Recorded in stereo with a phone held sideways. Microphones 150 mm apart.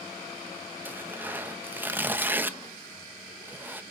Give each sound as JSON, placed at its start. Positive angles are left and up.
{"t": 0.8, "sound": "tearing paper", "side_deg": -10, "distance_m": 0.5}